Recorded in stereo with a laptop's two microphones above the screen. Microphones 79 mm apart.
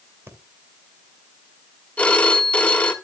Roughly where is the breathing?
Right.